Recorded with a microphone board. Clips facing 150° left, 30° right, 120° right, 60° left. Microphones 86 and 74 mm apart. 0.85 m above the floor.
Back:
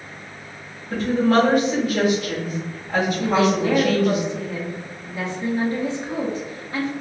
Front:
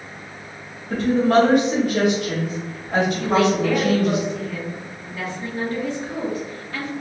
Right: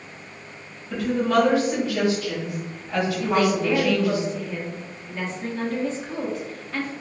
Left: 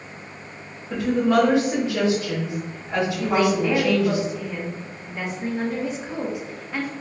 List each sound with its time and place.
0.9 s a woman speaking: straight ahead, 1.9 m
3.2 s a woman speaking: 120° left, 0.9 m